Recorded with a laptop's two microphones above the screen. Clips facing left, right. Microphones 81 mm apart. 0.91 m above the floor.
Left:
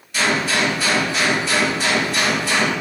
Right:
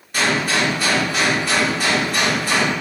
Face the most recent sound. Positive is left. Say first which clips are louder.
# even
turn(degrees=-50)  # may be behind; listen again after turning